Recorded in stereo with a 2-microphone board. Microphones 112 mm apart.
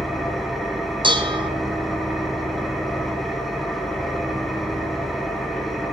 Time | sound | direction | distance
0.0 | an engine running | centre (ahead or behind) | 2 m
1.0 | dishes clattering | 45° right (ahead or behind) | 0.9 m